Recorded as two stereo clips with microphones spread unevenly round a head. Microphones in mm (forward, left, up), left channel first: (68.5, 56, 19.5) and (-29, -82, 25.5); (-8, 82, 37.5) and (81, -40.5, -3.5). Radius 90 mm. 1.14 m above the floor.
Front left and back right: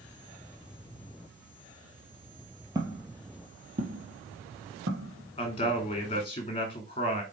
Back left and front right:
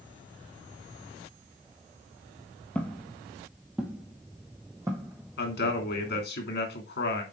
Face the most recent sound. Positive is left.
turn(degrees=115)